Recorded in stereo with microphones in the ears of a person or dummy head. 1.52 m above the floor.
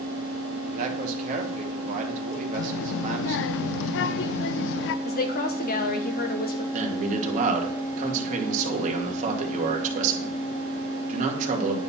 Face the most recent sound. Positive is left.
turn(degrees=-45)  # may be behind; listen again after turning